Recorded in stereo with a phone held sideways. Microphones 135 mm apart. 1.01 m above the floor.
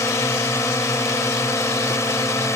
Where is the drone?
20° left (ahead or behind).